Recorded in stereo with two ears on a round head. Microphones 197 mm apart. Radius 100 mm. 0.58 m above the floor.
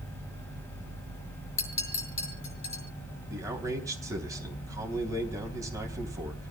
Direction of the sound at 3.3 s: 15° right (ahead or behind).